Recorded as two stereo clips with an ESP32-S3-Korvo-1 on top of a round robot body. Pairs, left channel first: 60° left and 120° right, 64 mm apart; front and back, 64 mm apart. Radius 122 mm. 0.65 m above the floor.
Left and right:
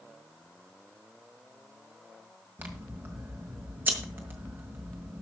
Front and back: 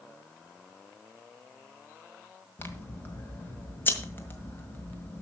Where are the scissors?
60° right, 1.8 m.